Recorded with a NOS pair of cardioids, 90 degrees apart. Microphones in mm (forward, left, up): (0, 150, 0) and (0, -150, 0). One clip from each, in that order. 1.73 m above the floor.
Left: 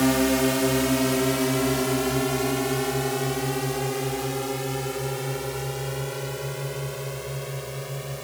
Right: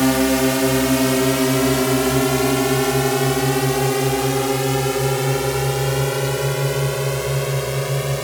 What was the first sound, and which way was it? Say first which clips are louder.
A drone: right 4 dB; 25° right.